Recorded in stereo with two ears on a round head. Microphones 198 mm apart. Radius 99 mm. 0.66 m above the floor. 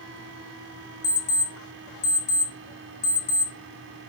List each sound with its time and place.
1.0 s an alarm clock: 35° left (ahead or behind), 1.1 m